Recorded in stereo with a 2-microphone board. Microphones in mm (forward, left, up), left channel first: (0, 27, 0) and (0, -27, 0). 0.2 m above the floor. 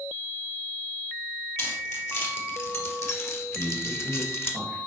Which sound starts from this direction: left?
Keys jangling, at 1.6 s.